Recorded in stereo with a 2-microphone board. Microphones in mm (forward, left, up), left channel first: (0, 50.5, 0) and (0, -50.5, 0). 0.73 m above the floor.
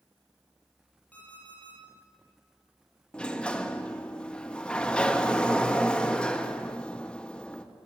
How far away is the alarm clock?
About 7 m.